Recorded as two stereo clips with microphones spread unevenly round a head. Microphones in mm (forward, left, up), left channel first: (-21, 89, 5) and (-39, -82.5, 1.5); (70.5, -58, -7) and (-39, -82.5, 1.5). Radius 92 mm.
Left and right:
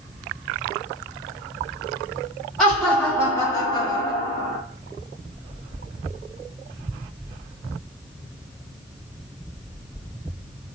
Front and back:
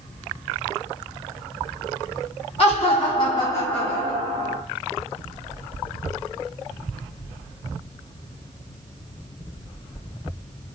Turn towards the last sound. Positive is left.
turn(degrees=150)